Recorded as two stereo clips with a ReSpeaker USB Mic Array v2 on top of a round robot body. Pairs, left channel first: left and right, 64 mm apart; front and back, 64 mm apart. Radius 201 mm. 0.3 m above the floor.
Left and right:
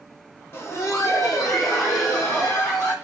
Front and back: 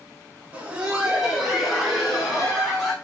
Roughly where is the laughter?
Behind left.